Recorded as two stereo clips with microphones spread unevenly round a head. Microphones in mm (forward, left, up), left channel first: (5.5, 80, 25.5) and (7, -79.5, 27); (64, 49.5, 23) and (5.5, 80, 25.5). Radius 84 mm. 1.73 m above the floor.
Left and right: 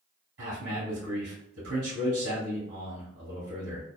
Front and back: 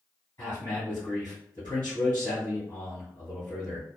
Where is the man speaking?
95° right, 1.6 m.